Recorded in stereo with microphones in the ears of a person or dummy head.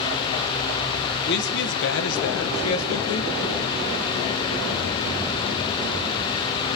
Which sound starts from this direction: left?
A man speaking, at 1.2 s.